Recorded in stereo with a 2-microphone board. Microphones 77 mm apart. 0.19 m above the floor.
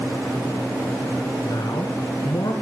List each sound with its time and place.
1.4 s a man speaking: 60° left (ahead or behind), 2 m; by 2.5 s 55° left (ahead or behind), 1.8 m